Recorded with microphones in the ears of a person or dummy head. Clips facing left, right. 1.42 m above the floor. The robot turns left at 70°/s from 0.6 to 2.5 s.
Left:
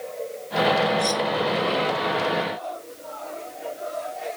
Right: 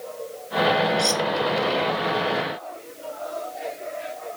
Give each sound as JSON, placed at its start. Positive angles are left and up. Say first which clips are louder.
{"t": 1.0, "sound": "cutlery clinking", "louder": "even", "side_deg": -50}